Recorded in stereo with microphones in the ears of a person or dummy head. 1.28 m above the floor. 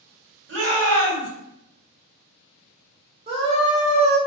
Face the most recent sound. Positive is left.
turn(degrees=-30)  # may be behind; listen again after turning